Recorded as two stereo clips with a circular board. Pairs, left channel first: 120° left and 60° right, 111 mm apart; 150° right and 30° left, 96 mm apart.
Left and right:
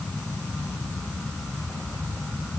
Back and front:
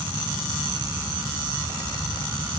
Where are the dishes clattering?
I don't hear dishes clattering.